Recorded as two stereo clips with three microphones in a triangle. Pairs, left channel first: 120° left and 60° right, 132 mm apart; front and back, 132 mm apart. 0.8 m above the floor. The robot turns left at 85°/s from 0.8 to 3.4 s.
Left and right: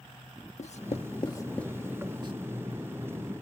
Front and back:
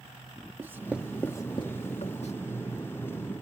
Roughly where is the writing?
Left.